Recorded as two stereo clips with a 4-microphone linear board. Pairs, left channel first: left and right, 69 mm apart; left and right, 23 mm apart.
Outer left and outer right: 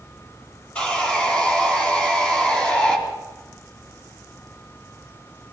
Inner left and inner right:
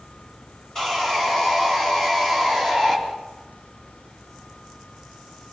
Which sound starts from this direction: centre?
Sawing, at 0.8 s.